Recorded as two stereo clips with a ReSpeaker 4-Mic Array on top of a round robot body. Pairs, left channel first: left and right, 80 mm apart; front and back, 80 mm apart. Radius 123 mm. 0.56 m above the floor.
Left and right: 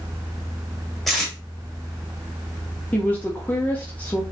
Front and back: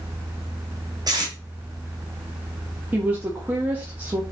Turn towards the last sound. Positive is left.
turn(degrees=140)